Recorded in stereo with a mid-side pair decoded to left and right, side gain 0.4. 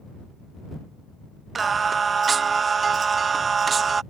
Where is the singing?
45° right.